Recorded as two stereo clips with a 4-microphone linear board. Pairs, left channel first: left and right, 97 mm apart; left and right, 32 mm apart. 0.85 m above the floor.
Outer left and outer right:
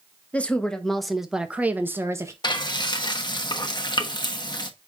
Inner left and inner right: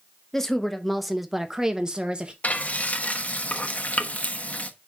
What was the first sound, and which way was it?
A woman speaking, 15° left (ahead or behind).